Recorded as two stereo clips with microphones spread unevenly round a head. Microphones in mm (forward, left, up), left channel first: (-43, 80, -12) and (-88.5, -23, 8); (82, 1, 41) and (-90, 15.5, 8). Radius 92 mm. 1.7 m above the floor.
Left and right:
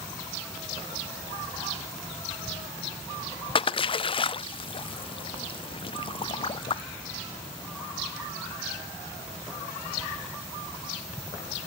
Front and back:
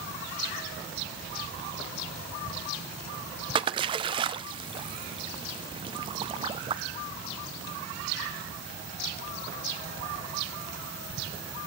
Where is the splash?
110° left, 0.6 m.